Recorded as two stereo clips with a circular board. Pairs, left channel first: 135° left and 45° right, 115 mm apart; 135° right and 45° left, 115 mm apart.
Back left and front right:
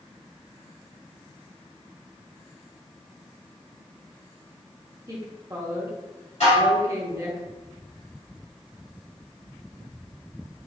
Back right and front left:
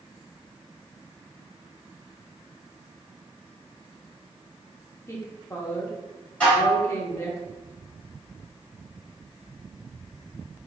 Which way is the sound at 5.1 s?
85° right.